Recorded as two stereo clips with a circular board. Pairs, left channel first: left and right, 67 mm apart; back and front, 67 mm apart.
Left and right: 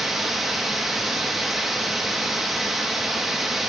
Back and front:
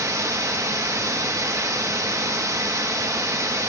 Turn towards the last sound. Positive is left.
turn(degrees=-5)